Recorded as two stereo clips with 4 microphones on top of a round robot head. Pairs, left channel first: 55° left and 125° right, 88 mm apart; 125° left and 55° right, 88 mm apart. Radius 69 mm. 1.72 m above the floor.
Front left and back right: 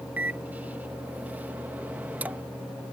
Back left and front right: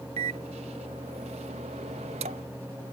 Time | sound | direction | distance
0.2 | a microwave | 55° right | ?